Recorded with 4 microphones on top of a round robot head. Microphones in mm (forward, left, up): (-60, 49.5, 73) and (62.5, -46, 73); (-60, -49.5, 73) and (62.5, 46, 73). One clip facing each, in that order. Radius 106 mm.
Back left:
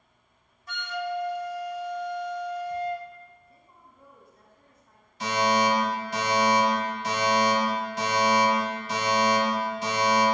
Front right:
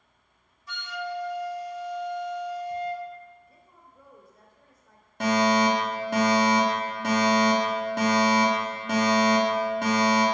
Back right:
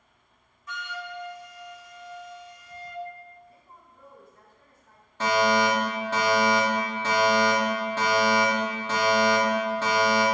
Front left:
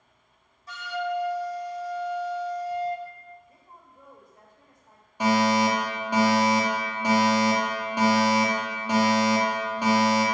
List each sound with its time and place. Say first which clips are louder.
0.7 s a flute: back left 3 dB, front left 9 dB; 95° left, 0.9 m
3.5 s a woman speaking: even, even; 35° right, 3 m
5.2 s a fire alarm: front right 2 dB, front left 1 dB; 35° right, 2.5 m